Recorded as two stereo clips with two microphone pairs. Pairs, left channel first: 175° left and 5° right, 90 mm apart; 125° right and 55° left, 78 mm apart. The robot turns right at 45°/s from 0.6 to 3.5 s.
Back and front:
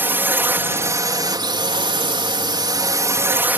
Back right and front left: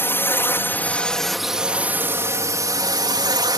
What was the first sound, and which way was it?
A drone, 70° right.